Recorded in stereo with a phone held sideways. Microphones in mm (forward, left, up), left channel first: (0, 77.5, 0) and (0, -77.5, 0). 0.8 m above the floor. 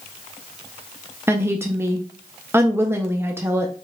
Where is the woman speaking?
15° right (ahead or behind), 0.6 m.